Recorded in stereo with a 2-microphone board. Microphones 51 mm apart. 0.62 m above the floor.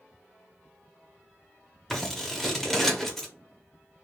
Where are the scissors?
5° left (ahead or behind), 0.7 m.